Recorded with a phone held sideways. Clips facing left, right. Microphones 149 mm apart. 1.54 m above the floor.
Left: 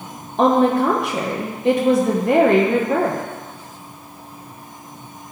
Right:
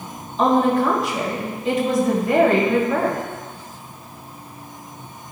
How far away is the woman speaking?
About 1.5 m.